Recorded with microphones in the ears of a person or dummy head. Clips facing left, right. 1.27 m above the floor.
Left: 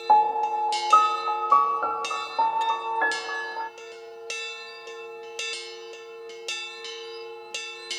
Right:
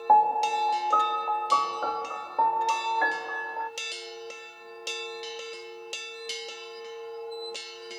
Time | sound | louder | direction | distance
0.1 | a piano | left 1 dB | centre (ahead or behind) | 0.6 m